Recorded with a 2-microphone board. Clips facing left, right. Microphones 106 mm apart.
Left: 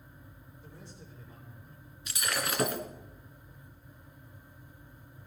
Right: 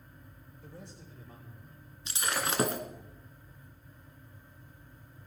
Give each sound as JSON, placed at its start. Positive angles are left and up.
{"t": 0.6, "sound": "a man speaking", "side_deg": -75, "distance_m": 8.5}
{"t": 2.1, "sound": "breaking glass", "side_deg": -30, "distance_m": 1.7}